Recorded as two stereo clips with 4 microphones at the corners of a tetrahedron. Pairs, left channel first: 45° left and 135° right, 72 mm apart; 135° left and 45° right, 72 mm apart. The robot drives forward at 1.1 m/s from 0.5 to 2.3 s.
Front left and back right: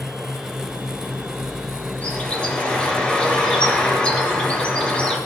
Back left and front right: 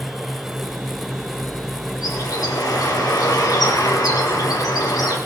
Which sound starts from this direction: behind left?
A bird, at 2.0 s.